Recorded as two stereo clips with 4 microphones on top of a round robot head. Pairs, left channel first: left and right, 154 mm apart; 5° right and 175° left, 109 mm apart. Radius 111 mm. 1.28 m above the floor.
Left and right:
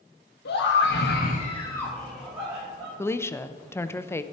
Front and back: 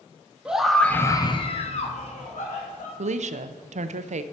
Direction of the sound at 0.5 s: 95° left.